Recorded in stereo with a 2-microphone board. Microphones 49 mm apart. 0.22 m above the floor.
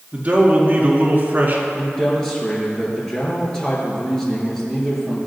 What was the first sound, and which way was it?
A man speaking, 30° right (ahead or behind).